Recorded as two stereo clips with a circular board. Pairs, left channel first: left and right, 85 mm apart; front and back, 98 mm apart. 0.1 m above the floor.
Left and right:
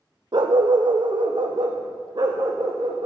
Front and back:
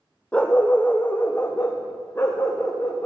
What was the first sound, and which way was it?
A dog barking, 75° right.